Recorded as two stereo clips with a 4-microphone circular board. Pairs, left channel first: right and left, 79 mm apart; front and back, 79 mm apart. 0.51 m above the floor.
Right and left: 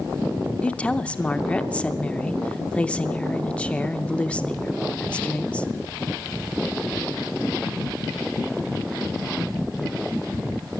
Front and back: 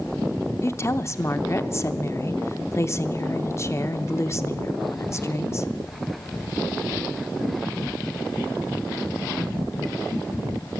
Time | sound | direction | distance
0.6 | a woman speaking | 20° right | 0.8 m